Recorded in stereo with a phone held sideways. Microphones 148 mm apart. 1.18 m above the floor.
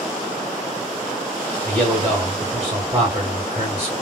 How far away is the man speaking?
About 1.9 m.